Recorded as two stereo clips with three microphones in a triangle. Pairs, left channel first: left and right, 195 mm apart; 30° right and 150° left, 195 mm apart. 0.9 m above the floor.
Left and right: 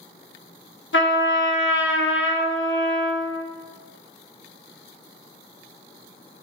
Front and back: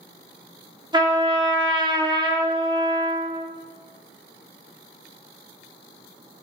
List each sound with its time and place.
0.9 s a trumpet: 85° left, 0.9 m